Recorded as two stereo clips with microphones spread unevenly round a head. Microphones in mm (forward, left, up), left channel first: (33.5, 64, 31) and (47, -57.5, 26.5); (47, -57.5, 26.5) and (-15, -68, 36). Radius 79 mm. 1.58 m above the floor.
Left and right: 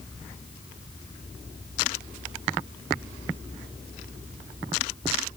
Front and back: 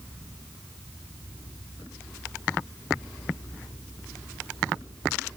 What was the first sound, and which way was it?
Only background noise.